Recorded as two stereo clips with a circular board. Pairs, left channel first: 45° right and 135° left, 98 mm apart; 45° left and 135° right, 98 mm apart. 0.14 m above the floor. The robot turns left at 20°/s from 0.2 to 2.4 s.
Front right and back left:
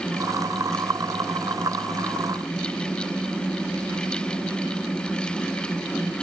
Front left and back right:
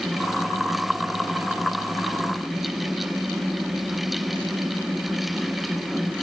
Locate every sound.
Only background noise.